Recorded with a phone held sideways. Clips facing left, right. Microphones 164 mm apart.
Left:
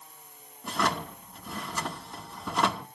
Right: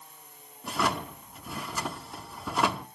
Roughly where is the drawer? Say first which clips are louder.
Even; centre.